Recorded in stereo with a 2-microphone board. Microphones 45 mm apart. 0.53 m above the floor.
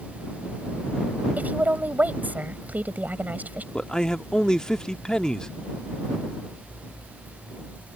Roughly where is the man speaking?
Centre.